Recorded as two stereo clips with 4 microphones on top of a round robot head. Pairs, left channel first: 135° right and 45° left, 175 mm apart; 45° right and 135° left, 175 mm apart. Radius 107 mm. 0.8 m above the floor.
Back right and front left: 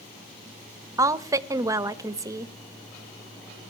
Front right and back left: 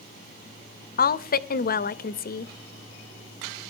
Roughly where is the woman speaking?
Ahead right.